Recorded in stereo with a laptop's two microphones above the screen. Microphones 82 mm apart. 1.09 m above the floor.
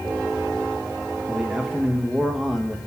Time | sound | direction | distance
1.3 | a man speaking | 5° right (ahead or behind) | 1.0 m